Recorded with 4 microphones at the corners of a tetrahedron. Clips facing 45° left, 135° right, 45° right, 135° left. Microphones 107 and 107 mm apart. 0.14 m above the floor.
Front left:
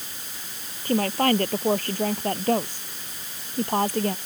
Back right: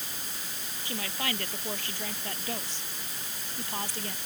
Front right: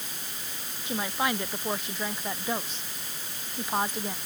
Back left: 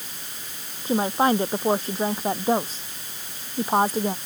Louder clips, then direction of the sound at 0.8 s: Front left 14 dB, back left 9 dB; 85° left.